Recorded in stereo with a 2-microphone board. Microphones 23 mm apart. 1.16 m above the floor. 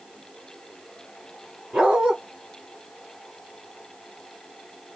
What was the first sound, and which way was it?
A dog barking, 45° right (ahead or behind).